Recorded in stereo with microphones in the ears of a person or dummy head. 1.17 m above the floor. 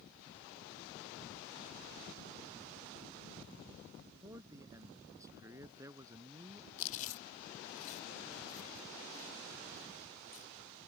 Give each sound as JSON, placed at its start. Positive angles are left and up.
{"t": 4.2, "sound": "a man speaking", "side_deg": -15}
{"t": 6.8, "sound": "chewing", "side_deg": 40}